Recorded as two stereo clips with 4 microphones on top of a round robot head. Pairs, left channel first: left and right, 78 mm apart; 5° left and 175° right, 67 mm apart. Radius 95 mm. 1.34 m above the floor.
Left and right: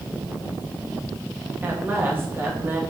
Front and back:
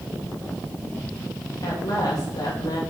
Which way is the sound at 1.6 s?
30° right.